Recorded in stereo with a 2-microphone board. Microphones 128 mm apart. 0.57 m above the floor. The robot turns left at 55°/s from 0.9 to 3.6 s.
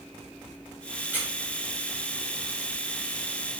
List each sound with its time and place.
1.1 s a squeak: 15° right (ahead or behind), 1.0 m; by 1.3 s 5° right (ahead or behind), 1.0 m